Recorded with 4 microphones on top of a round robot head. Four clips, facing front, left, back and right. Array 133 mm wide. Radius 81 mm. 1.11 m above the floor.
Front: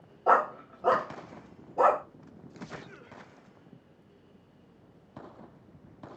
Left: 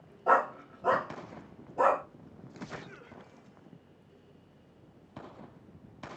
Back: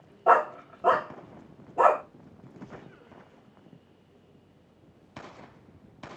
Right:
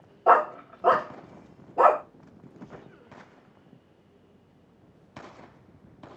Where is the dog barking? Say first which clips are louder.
Right 6 dB, back 3 dB; 110° right, 0.8 m.